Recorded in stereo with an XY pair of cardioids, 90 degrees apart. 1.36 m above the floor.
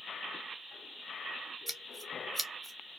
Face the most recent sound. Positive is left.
turn(degrees=-15)